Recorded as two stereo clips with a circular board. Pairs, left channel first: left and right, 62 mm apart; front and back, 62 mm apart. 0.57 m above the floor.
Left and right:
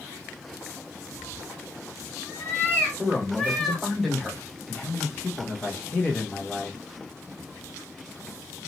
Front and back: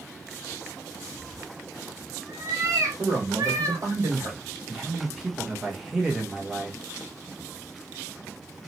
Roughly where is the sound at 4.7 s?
Left.